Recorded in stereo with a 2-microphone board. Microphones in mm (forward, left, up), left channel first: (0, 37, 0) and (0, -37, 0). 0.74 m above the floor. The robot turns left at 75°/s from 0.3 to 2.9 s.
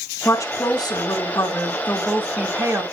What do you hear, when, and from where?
0.2 s a woman speaking: 140° left, 2.5 m; by 2.8 s 50° right, 2.5 m